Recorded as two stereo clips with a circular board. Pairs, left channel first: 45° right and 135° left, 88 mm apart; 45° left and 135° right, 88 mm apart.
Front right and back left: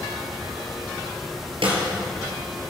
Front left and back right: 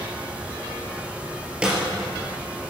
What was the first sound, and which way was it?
A snare drum, 145° left.